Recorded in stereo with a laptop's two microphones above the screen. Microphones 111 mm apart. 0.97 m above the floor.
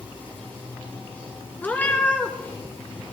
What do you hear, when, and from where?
0.0 s running water: 15° left (ahead or behind), 7.5 m
1.6 s a cat meowing: 15° left (ahead or behind), 2 m